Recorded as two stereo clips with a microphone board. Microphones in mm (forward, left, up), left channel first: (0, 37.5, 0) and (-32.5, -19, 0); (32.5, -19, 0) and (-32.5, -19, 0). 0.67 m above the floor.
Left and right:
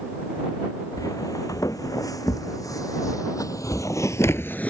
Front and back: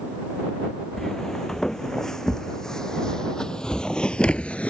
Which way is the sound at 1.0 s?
85° left.